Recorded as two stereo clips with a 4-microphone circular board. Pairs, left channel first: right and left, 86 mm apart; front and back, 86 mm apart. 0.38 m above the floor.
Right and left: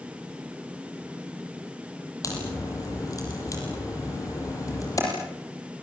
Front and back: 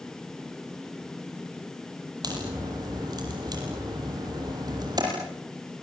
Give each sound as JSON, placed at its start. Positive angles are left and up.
{"t": 2.2, "sound": "a crack", "azimuth_deg": -140, "distance_m": 8.0}